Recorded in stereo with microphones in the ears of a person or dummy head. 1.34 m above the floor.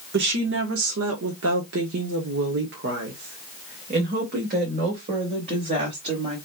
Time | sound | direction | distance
0.1 | a woman speaking | 60° right (ahead or behind) | 1.4 m